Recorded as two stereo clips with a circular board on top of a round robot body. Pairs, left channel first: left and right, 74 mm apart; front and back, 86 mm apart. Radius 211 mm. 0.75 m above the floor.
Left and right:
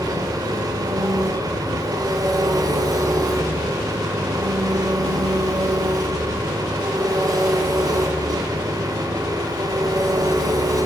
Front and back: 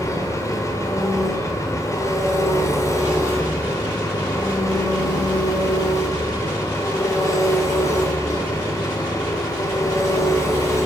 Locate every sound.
0.0 s an engine running: 55° right, 2 m